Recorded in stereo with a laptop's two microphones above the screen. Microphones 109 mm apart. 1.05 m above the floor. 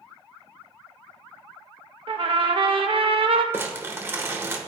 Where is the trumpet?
55° right (ahead or behind), 0.5 m.